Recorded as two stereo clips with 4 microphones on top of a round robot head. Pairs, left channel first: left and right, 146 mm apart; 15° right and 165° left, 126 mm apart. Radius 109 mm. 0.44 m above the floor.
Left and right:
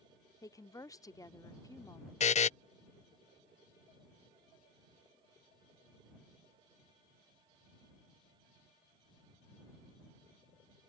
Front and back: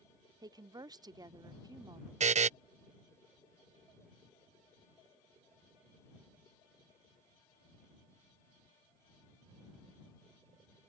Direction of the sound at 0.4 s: 140° left.